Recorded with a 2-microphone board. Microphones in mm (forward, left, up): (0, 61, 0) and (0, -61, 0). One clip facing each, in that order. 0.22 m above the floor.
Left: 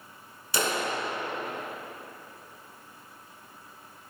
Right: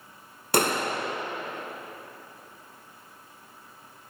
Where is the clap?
60° right (ahead or behind), 1.9 m.